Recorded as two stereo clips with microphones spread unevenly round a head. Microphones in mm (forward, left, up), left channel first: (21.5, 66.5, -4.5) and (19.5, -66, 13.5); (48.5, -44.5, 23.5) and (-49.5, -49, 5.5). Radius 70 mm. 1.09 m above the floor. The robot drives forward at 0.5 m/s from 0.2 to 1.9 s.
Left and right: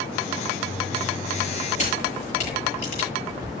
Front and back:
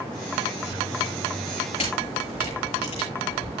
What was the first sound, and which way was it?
A camera shutter, 50° left.